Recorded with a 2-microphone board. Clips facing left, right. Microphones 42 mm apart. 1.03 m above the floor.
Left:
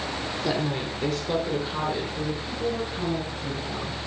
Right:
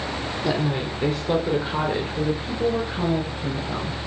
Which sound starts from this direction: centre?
A woman speaking, at 0.4 s.